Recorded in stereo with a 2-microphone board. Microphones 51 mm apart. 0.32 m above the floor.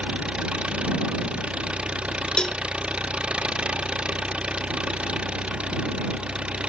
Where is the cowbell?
15° left (ahead or behind).